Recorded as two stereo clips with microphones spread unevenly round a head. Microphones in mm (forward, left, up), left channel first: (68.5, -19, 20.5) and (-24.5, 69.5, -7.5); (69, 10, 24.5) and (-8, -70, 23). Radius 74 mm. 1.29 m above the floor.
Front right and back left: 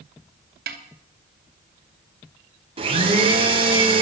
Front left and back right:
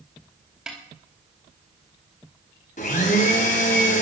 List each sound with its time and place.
0.7 s a snare drum: 140° left, 2.5 m
2.8 s a blender: 90° left, 3 m